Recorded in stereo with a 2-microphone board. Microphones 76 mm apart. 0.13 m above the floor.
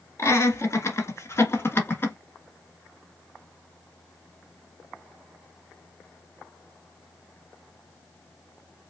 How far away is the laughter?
About 1.6 m.